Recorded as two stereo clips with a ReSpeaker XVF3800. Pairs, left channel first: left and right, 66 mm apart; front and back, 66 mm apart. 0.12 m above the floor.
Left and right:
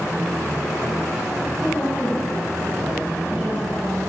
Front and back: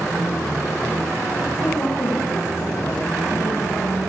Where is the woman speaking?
30° left, 3.5 m; by 4.1 s 20° right, 4 m.